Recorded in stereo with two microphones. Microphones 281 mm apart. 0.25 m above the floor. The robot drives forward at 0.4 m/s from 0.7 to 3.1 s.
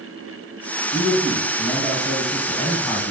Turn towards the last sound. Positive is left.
turn(degrees=15)  # may be behind; listen again after turning